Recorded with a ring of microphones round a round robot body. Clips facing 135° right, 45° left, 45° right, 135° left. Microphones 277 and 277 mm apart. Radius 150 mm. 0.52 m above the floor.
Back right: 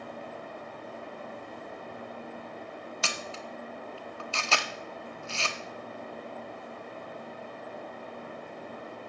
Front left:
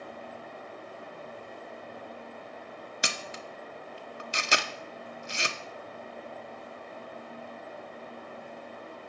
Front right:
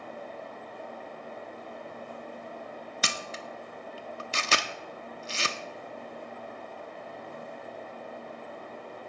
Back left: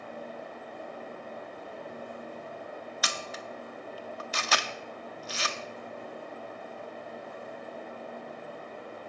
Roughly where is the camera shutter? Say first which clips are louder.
Front left 2 dB, front right 1 dB; ahead.